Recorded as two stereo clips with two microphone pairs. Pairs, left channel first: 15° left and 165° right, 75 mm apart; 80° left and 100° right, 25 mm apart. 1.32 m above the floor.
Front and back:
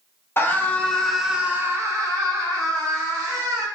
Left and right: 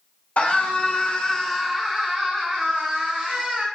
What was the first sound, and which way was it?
A scream, 70° left.